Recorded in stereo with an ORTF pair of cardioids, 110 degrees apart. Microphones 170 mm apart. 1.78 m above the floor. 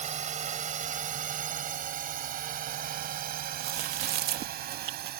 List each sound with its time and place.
0.0 s a drone: 45° right; by 5.2 s 65° right
3.6 s chewing: 70° right